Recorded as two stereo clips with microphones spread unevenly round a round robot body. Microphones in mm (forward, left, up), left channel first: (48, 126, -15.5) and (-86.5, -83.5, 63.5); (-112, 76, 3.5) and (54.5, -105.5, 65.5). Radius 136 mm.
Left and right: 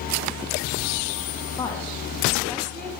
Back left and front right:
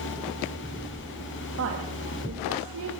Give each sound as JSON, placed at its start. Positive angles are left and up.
{"t": 1.6, "sound": "a woman speaking", "azimuth_deg": -5, "distance_m": 3.0}